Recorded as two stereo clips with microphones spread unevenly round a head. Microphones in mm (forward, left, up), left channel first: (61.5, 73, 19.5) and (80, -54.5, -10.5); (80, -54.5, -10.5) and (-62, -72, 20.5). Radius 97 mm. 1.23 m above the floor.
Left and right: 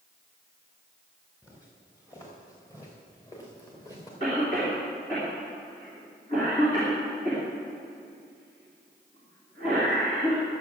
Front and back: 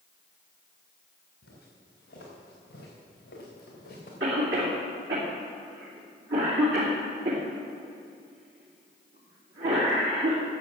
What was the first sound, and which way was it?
Footsteps, 35° left.